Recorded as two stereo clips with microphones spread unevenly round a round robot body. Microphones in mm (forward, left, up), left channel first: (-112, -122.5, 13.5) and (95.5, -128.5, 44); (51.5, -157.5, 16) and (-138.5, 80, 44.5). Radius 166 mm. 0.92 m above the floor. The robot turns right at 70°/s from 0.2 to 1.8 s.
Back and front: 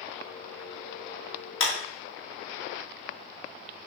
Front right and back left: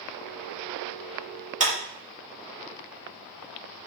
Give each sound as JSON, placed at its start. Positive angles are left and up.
{"t": 1.6, "sound": "a clap", "azimuth_deg": -165, "distance_m": 1.8}